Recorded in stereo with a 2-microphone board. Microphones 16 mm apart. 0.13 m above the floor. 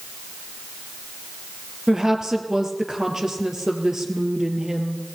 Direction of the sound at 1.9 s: 35° right (ahead or behind).